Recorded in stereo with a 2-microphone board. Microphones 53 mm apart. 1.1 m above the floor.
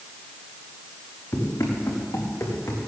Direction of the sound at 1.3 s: 75° left (ahead or behind).